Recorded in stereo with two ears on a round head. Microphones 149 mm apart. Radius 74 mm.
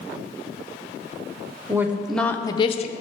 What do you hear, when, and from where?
1.7 s a woman speaking: 15° right (ahead or behind), 0.7 m; by 2.9 s 45° left (ahead or behind), 0.6 m